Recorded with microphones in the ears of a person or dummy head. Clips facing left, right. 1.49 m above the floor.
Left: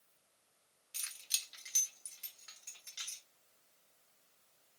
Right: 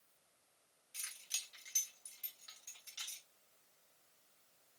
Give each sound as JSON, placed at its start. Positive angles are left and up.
{"t": 0.9, "sound": "keys jangling", "side_deg": 50, "distance_m": 1.1}